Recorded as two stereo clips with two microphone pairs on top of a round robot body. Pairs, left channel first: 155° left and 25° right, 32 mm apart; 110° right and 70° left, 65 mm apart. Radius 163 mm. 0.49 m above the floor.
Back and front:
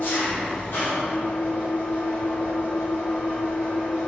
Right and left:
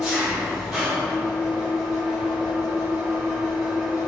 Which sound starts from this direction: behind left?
An engine running, at 0.0 s.